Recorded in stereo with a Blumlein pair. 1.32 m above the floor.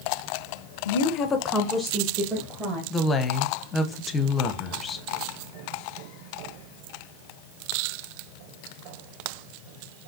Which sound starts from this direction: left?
A woman speaking, at 0.8 s.